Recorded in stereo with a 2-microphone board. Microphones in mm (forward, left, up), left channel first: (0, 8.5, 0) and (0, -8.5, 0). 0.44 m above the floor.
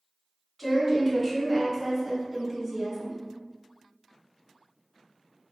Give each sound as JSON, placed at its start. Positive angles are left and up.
{"t": 0.6, "sound": "a woman speaking", "side_deg": -5, "distance_m": 1.7}